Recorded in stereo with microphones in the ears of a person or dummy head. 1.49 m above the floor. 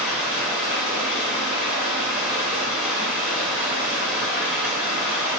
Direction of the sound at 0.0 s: 5° left (ahead or behind).